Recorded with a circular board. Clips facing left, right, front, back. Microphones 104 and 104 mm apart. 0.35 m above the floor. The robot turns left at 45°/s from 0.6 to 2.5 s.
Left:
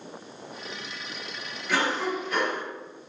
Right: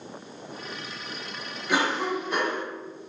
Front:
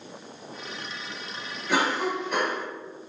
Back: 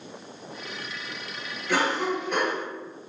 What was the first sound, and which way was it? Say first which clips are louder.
A cough: right 1 dB, even; 50° right.